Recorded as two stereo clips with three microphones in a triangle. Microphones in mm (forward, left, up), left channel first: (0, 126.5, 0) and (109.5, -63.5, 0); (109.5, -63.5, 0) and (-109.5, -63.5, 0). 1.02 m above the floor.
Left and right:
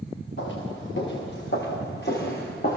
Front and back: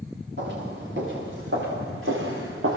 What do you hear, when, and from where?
0.4 s footsteps: 145° left, 6.5 m; by 2.8 s 165° left, 6 m